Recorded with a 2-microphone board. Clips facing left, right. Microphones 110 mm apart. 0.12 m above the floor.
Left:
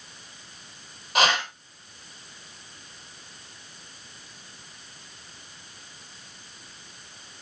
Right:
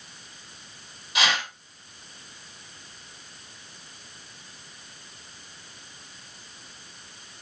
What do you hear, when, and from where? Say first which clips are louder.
1.1 s a whoosh: left 4 dB; 50° left (ahead or behind), 4.5 m